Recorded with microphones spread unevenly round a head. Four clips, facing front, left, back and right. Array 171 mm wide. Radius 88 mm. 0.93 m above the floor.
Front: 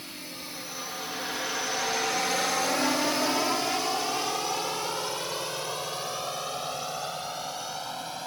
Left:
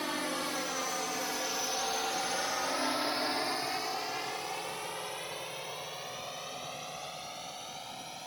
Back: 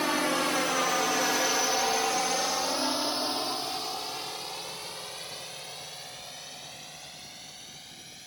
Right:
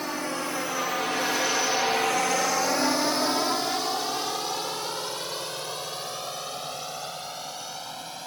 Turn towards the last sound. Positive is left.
turn(degrees=-35)